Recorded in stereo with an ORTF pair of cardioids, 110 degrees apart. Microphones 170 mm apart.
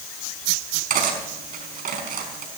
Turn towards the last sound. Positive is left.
turn(degrees=-55)